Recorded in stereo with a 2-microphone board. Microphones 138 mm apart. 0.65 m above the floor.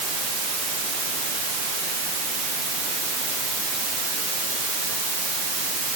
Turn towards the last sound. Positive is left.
No sound to turn to.